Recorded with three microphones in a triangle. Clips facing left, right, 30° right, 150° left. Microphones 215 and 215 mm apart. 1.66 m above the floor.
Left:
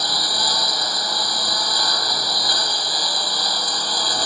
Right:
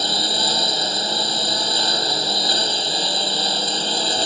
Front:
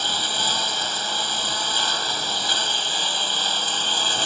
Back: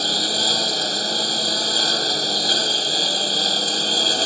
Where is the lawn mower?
155° right.